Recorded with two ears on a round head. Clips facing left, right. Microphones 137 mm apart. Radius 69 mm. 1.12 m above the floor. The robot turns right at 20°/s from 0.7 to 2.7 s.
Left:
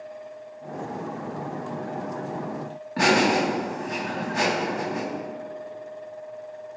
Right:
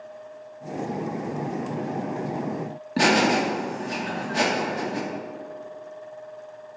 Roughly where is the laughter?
Right.